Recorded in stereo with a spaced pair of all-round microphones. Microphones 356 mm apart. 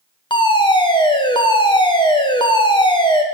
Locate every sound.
0.3 s a fire alarm: 10° left (ahead or behind), 1.0 m